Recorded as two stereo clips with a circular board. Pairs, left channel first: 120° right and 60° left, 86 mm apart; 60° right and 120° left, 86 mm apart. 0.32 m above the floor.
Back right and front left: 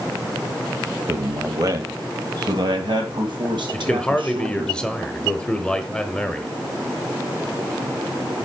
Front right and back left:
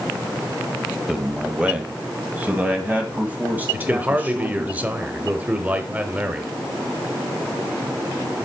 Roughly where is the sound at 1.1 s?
Ahead left.